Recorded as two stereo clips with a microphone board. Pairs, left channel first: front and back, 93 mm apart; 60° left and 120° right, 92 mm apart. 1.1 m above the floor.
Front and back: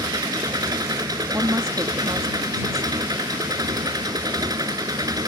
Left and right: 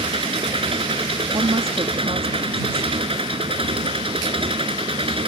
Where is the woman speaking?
125° right.